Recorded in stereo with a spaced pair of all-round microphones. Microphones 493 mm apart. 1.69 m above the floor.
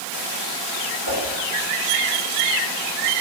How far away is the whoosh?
About 5 m.